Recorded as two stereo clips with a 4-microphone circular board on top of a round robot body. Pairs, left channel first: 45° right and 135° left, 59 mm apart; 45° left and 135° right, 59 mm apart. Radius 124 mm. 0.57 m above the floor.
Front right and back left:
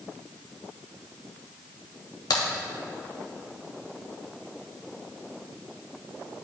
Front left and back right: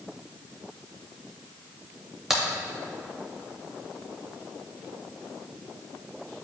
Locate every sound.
2.3 s a crack: 50° right, 0.7 m